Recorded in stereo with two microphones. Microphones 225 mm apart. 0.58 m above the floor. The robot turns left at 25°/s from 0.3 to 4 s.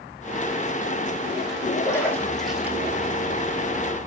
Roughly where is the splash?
Centre.